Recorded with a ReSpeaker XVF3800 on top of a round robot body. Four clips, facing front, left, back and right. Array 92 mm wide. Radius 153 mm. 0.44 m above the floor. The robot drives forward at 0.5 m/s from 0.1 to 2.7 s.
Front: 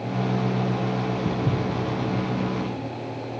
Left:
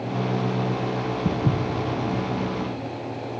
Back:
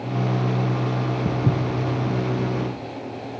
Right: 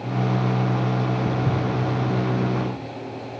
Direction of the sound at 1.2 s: 125° left.